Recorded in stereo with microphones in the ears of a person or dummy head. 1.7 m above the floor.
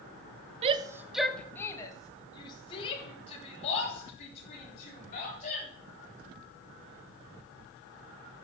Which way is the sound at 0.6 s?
35° right (ahead or behind).